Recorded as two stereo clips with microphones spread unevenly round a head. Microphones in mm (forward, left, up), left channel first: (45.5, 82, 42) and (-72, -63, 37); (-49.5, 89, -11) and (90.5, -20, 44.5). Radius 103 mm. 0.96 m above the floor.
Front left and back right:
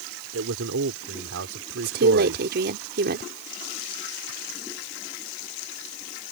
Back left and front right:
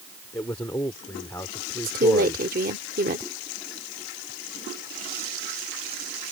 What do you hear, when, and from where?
0.3 s a man speaking: 140° right
1.8 s a woman speaking: 90° right